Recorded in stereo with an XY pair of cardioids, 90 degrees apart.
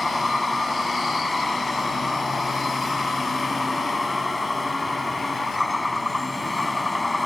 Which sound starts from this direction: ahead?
A vehicle, at 0.0 s.